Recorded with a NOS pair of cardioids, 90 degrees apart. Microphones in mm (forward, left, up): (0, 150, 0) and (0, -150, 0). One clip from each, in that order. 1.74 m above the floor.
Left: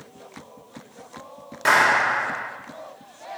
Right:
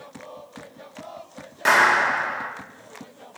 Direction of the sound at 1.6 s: Straight ahead.